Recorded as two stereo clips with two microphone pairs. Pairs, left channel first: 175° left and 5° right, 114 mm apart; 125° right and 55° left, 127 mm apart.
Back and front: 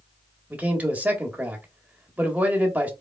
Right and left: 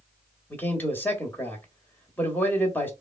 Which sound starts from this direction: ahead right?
A man speaking, at 0.5 s.